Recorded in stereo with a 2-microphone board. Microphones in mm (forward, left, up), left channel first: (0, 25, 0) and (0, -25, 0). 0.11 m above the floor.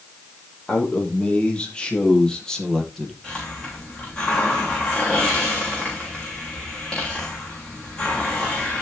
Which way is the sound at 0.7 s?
30° left (ahead or behind).